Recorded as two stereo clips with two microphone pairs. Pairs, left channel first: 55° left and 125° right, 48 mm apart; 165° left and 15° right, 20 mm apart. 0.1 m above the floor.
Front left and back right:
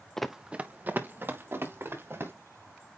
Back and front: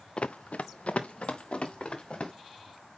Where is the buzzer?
I don't hear a buzzer.